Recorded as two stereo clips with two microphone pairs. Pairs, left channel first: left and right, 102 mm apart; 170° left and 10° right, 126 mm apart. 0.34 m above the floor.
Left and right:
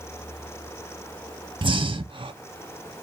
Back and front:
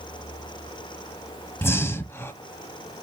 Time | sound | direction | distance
1.6 | breathing | 125° right | 0.5 m